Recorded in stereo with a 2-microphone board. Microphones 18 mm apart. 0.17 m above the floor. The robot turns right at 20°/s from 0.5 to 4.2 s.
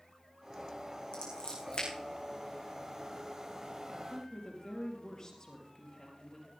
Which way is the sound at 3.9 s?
25° left (ahead or behind).